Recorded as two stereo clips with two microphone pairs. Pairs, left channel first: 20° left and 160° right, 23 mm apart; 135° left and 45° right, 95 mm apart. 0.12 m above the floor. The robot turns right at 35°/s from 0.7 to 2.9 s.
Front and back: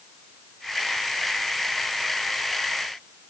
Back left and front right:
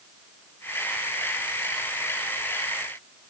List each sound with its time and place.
Only background noise.